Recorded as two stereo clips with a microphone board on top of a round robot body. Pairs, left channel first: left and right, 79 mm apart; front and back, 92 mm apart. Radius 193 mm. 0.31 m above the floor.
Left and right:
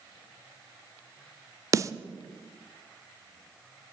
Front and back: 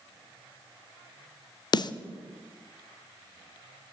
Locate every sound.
1.7 s a snare drum: 40° right, 0.5 m